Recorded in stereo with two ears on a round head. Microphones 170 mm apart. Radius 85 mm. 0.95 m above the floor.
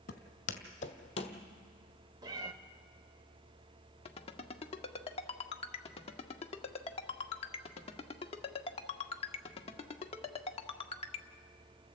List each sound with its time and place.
0.1 s footsteps: 50° left (ahead or behind), 1.7 m; by 1.4 s 30° left (ahead or behind), 1.8 m
2.2 s a cat meowing: 25° right (ahead or behind), 1.3 m
4.0 s a ringtone: 30° left (ahead or behind), 1.1 m